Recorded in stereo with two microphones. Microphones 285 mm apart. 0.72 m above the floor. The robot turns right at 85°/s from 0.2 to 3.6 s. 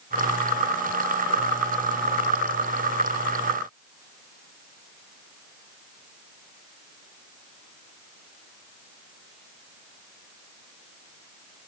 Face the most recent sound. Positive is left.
No sound to turn to.